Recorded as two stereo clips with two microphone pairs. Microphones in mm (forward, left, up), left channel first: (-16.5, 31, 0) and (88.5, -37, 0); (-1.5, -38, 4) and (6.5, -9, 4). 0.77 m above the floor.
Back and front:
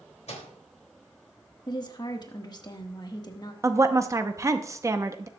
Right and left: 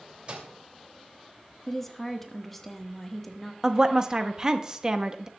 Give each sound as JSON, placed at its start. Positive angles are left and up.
{"t": 0.3, "sound": "a microwave", "azimuth_deg": 115, "distance_m": 2.5}
{"t": 1.7, "sound": "a woman speaking", "azimuth_deg": 175, "distance_m": 1.2}
{"t": 3.6, "sound": "a woman speaking", "azimuth_deg": 20, "distance_m": 0.8}